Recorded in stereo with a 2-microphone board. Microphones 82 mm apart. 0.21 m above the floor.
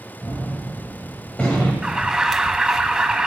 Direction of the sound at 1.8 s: 10° right (ahead or behind).